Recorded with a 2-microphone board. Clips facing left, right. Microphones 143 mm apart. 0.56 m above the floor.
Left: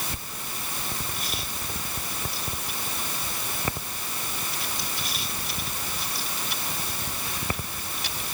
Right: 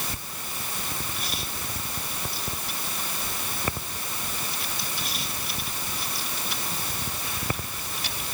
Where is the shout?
I don't hear a shout.